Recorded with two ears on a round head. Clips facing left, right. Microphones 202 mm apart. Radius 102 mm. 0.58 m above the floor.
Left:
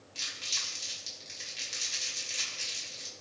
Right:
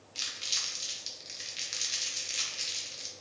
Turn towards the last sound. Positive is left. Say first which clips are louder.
# right 1 dB
turn(degrees=-15)  # may be behind; listen again after turning